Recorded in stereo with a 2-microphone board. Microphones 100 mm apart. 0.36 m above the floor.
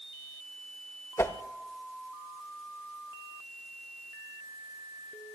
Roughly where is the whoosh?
Left.